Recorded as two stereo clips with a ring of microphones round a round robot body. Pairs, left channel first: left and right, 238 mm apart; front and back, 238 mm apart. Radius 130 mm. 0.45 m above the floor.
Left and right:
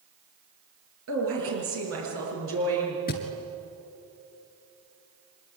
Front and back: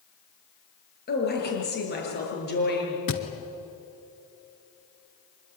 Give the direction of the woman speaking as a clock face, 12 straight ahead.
2 o'clock.